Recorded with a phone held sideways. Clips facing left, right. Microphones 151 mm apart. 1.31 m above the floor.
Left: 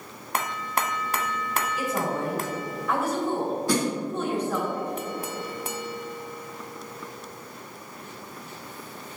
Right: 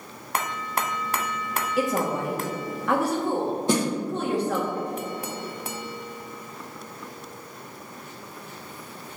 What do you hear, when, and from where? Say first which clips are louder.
1.8 s a woman speaking: right 5 dB; 80° right, 1.8 m
3.7 s a snare drum: right 2 dB; 25° right (ahead or behind), 1.4 m